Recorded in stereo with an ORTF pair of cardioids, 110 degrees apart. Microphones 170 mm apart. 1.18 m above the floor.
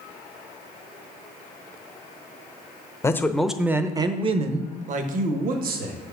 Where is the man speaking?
15° left, 0.7 m; by 6.0 s 65° right, 1.5 m.